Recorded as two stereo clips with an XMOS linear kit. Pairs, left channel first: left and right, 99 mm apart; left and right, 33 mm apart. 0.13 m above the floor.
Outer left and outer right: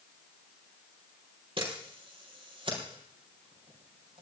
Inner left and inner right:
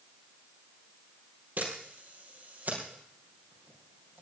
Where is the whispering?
No whispering in this recording.